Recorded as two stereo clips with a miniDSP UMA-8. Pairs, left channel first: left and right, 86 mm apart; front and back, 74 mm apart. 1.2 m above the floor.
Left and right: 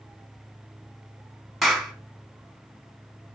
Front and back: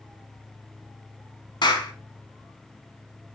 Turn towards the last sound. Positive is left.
turn(degrees=0)